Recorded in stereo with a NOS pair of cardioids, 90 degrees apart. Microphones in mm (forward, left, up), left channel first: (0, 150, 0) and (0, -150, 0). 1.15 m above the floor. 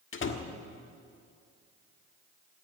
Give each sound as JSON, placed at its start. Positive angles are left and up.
{"t": 0.1, "sound": "a door slam", "azimuth_deg": 40, "distance_m": 1.6}